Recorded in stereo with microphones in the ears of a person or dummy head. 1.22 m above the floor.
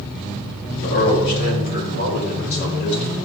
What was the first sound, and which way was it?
A man speaking, 45° left (ahead or behind).